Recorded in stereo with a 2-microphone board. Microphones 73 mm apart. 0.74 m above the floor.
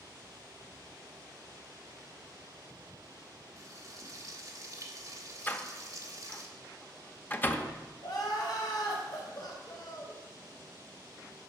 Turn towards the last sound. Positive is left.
turn(degrees=65)  # may be behind; listen again after turning